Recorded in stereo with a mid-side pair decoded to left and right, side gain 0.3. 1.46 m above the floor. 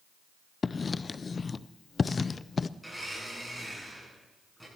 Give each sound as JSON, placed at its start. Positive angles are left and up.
{"t": 0.6, "sound": "writing", "azimuth_deg": 50, "distance_m": 0.5}
{"t": 2.8, "sound": "a blender", "azimuth_deg": -5, "distance_m": 9.5}